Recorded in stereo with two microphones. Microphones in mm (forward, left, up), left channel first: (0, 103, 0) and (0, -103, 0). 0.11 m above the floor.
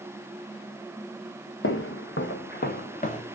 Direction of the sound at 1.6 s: 85° left.